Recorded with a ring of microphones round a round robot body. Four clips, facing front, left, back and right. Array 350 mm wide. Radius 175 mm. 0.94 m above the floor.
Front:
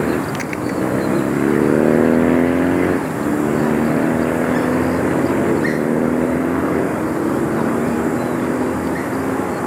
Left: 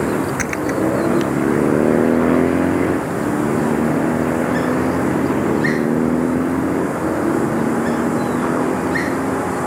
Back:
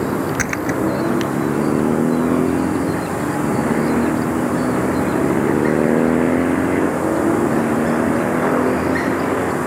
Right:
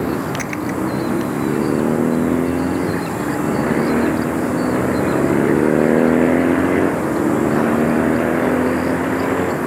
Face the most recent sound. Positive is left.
turn(degrees=155)